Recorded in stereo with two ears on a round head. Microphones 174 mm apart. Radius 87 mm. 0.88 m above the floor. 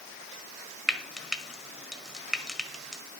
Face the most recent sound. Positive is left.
turn(degrees=0)  # may be behind; listen again after turning